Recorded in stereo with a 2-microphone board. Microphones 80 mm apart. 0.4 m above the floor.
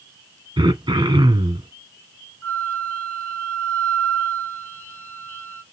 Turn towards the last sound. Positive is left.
turn(degrees=20)  # may be behind; listen again after turning